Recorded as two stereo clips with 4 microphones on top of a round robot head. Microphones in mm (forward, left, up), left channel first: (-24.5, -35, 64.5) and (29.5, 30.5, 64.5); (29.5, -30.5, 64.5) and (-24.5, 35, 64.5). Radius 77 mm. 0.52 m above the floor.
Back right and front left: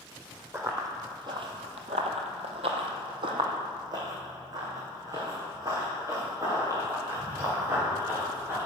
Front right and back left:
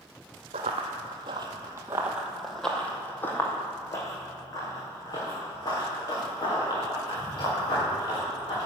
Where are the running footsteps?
115° left, 1.5 m; by 8.7 s 10° right, 5.5 m.